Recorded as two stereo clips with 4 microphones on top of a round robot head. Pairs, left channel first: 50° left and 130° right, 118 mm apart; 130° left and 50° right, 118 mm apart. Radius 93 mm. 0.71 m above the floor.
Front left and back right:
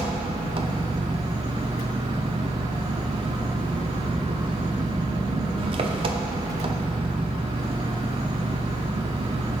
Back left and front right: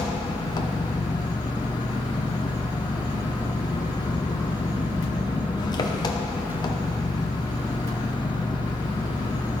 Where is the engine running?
175° right, 0.8 m.